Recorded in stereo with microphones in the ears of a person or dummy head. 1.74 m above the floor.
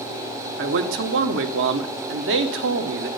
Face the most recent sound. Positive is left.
turn(degrees=-60)  # may be behind; listen again after turning